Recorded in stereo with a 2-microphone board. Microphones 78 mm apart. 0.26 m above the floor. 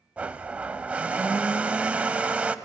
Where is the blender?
15° right (ahead or behind), 0.5 m.